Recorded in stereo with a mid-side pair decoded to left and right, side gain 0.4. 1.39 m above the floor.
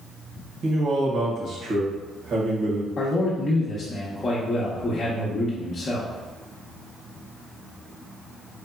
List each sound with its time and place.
0.6 s a man speaking: 70° right, 1.4 m
3.0 s a man speaking: 40° left, 0.9 m